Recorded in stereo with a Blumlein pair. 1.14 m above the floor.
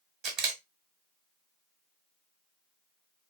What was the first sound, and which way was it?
A camera shutter, 25° right.